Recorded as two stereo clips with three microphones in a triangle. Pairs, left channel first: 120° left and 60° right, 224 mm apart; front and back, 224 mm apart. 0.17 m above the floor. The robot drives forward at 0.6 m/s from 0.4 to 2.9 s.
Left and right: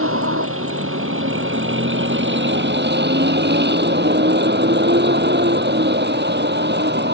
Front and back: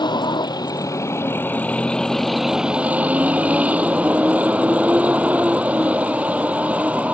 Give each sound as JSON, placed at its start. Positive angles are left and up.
{"t": 0.0, "sound": "a vehicle", "azimuth_deg": -70}